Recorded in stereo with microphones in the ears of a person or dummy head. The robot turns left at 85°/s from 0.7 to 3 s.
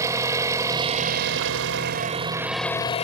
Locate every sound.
0.0 s an engine running: 20° right; by 3.1 s 140° left